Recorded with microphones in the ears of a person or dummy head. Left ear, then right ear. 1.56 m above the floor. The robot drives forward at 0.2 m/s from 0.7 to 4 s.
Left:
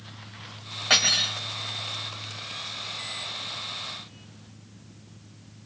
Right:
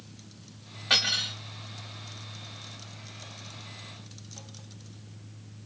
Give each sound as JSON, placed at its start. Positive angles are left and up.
{"t": 0.9, "sound": "cutlery clinking", "side_deg": 30, "distance_m": 1.5}